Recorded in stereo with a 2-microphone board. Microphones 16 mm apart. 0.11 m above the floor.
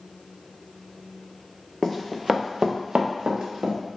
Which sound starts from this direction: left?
Running footsteps, at 1.8 s.